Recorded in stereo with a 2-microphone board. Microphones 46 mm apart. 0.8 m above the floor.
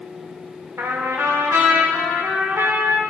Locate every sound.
0.8 s a trumpet: 75° right (ahead or behind), 2.5 m